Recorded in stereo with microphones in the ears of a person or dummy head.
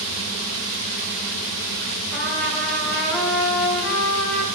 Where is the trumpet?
5° left (ahead or behind), 3 m.